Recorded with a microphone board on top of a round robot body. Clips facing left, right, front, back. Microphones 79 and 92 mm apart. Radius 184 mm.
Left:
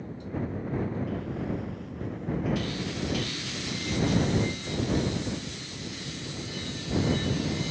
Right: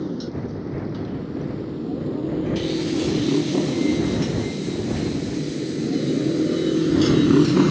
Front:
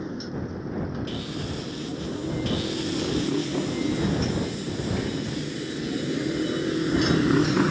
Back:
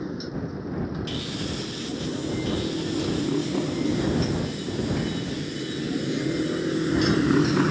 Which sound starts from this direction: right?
A motorcycle, at 0.0 s.